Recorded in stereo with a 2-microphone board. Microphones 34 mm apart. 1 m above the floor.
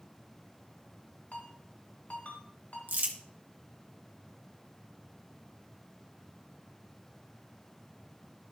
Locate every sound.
1.3 s a ringtone: 60° left (ahead or behind), 2.5 m
2.9 s crumpling: 65° right (ahead or behind), 1.3 m